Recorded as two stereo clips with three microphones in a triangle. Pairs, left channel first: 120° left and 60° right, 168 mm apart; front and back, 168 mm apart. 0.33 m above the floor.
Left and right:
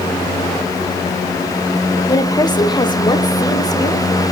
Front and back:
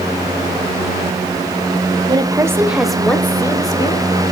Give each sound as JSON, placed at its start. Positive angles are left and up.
{"t": 2.1, "sound": "a woman speaking", "azimuth_deg": 165, "distance_m": 1.1}